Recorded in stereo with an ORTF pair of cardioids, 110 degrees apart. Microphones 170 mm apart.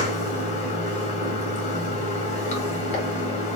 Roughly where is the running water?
Ahead left.